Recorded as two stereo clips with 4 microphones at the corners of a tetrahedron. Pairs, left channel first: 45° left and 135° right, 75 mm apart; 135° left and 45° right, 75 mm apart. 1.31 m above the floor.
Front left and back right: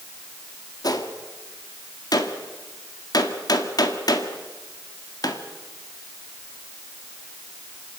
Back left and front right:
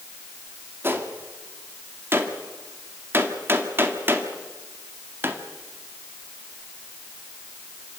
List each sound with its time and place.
0.8 s a gunshot: 15° left, 1.8 m